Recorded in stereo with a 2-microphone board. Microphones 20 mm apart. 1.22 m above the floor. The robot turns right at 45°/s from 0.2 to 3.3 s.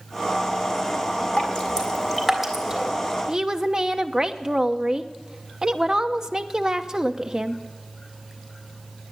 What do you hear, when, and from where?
1.4 s dripping: 45° left (ahead or behind), 3 m; by 2.9 s 25° right (ahead or behind), 3 m
3.3 s a woman speaking: 30° right (ahead or behind), 0.9 m